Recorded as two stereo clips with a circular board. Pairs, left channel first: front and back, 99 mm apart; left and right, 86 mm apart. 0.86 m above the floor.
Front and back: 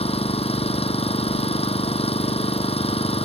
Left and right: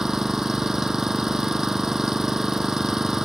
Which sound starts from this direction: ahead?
An engine running, at 0.0 s.